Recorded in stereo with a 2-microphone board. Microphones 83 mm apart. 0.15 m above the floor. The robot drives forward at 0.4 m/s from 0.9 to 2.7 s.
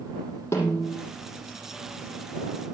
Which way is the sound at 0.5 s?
30° left (ahead or behind).